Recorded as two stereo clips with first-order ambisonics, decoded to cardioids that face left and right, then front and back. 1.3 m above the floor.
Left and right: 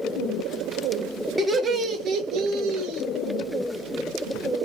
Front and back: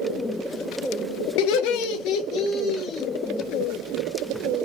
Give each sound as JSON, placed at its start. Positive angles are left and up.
{"t": 1.4, "sound": "laughter", "azimuth_deg": -10, "distance_m": 0.8}